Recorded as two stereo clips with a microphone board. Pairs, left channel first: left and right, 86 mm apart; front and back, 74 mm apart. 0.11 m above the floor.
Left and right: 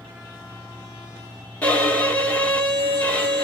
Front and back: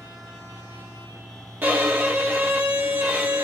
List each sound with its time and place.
1.6 s a violin: 145° left, 1.3 m